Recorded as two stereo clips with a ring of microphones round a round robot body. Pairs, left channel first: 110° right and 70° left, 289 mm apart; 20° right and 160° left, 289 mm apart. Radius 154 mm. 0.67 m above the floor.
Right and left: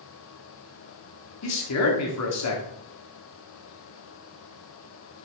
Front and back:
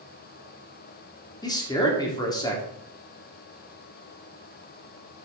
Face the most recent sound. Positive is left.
turn(degrees=-100)